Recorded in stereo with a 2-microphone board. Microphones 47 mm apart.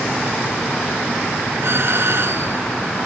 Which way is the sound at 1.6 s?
60° right (ahead or behind).